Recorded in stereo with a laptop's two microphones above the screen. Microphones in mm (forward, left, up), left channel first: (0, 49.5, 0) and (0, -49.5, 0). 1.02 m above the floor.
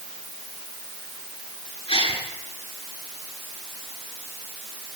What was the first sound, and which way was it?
A gasp, 85° left.